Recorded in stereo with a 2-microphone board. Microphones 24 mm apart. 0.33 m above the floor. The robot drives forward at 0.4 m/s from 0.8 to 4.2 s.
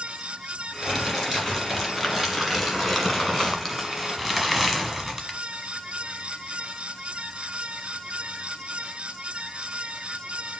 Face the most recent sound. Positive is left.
turn(degrees=5)  # may be behind; listen again after turning